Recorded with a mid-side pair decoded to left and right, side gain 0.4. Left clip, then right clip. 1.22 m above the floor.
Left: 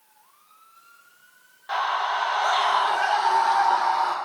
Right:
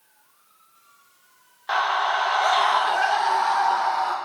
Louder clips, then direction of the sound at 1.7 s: Right 3 dB; 60° right.